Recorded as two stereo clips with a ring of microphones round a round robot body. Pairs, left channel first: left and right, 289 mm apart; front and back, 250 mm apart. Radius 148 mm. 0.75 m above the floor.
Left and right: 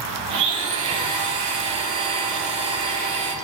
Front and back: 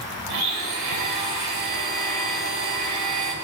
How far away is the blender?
About 5 m.